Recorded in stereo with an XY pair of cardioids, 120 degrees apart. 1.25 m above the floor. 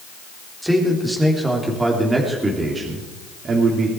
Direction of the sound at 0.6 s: 5° right.